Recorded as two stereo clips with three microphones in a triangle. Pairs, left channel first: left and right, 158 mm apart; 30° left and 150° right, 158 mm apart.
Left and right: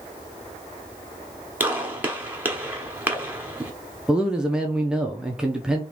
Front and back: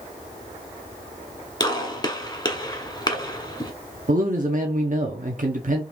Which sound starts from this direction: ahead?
A gunshot, at 1.6 s.